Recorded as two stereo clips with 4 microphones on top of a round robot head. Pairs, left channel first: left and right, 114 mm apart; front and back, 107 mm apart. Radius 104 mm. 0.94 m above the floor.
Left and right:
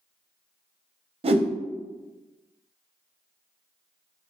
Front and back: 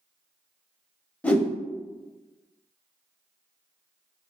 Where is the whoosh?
75° right, 0.5 m.